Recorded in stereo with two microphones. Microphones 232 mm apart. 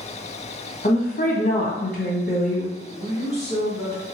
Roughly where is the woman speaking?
Left.